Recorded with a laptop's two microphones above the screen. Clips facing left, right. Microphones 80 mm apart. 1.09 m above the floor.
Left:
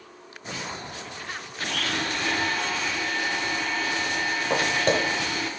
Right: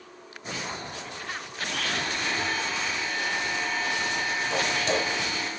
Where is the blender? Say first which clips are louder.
Left 2 dB; 60° left (ahead or behind), 7.5 m.